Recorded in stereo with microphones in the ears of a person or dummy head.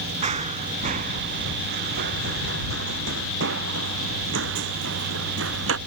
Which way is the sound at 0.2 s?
40° right (ahead or behind).